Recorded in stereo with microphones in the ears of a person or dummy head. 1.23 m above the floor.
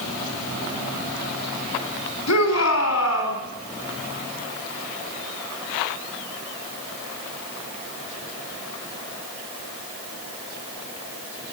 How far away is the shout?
About 4.5 m.